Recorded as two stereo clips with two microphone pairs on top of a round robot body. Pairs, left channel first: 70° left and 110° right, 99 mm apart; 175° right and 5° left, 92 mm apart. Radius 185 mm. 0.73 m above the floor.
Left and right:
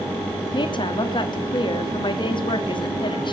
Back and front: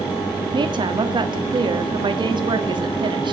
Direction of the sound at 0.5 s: 40° left.